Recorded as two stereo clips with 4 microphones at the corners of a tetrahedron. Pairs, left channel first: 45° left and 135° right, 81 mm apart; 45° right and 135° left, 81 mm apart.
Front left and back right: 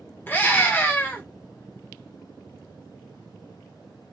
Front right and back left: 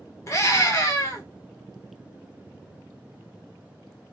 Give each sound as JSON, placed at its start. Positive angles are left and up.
{"t": 0.3, "sound": "a scream", "azimuth_deg": -15, "distance_m": 1.3}